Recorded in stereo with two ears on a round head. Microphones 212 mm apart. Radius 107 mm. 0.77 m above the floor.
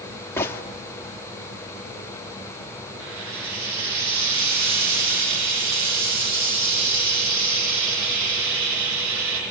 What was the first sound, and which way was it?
A gunshot, 10° left (ahead or behind).